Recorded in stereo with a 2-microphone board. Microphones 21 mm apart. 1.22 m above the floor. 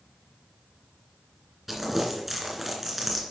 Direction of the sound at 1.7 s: 5° right (ahead or behind).